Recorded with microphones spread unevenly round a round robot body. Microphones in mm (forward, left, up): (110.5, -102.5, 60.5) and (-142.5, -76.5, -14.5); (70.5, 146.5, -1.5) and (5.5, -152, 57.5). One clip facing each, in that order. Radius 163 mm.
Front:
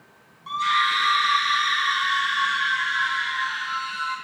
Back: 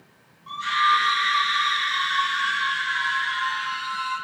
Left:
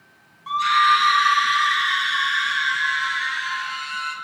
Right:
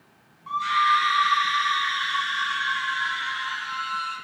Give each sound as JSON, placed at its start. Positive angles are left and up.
{"t": 0.5, "sound": "a scream", "azimuth_deg": 50, "distance_m": 4.0}